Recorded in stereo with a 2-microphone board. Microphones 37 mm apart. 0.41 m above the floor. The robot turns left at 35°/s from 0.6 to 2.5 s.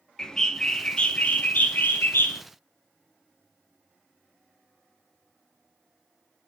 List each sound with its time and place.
0.2 s a bird: 165° left, 0.7 m; by 2.4 s 100° left, 0.7 m